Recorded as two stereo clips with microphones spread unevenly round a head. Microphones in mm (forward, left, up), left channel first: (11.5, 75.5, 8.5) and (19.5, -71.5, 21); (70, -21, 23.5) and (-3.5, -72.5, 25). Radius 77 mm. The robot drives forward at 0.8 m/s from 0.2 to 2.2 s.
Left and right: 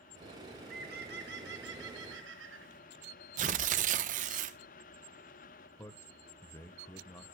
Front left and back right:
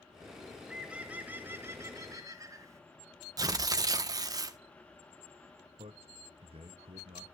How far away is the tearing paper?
About 0.8 m.